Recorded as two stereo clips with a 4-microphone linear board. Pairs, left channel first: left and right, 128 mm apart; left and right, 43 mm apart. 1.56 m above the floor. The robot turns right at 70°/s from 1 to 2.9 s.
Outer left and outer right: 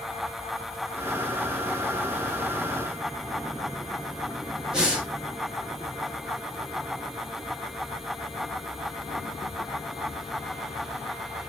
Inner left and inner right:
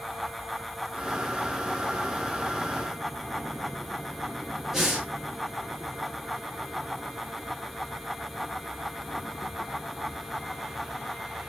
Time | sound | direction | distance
4.7 | breathing | 10° right (ahead or behind) | 1.6 m